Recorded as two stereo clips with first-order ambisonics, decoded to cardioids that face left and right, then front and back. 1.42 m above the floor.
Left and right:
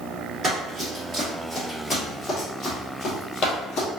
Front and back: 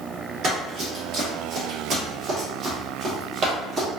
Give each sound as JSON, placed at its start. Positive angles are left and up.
{"t": 0.4, "sound": "running footsteps", "azimuth_deg": -150, "distance_m": 1.9}